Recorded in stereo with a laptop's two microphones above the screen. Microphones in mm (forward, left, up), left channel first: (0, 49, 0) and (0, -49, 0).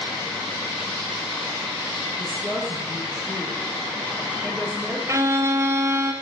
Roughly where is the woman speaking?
Centre.